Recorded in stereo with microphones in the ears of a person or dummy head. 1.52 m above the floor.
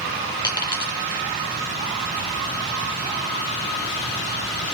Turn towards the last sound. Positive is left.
turn(degrees=20)  # may be behind; listen again after turning